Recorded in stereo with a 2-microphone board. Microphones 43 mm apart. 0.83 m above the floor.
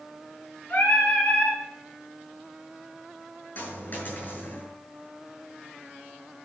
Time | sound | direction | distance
0.7 | singing | 45° left (ahead or behind) | 5.5 m
3.5 | a dropped coin | 45° left (ahead or behind) | 5.5 m